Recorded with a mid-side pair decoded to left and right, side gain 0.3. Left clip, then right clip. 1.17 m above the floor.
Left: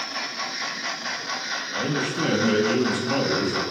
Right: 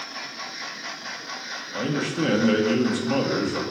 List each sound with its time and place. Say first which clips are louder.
1.7 s a man speaking: right 1 dB; 25° right, 0.9 m